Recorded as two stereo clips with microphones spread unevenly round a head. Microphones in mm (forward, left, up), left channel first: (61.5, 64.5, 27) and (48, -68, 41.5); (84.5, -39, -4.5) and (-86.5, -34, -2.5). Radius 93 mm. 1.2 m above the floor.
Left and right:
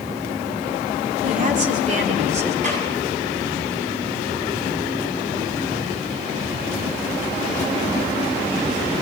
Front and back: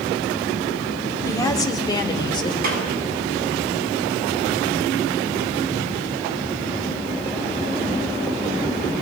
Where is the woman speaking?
70° right, 3.5 m; by 2.5 s 65° right, 5 m.